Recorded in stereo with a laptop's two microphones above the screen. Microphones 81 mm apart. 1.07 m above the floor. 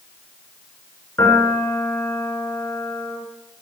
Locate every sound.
1.2 s a piano: 30° left (ahead or behind), 7.5 m